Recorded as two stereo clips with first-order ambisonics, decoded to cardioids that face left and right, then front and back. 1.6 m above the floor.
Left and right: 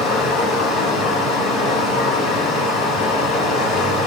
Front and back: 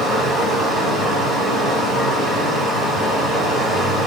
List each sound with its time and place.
0.0 s running water: 90° left, 1.8 m